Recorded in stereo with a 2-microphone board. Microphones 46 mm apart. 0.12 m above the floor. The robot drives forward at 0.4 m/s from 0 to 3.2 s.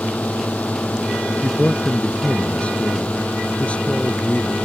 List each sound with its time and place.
0.0 s a drone: 30° left (ahead or behind); by 4.7 s 25° left (ahead or behind)
1.4 s a man speaking: 30° left (ahead or behind); by 4.5 s 25° left (ahead or behind)